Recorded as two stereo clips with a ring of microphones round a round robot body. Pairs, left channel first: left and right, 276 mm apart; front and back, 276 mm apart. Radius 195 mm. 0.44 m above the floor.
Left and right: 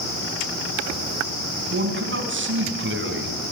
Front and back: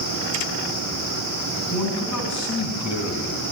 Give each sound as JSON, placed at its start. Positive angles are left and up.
{"t": 1.7, "sound": "a man speaking", "azimuth_deg": -45, "distance_m": 4.5}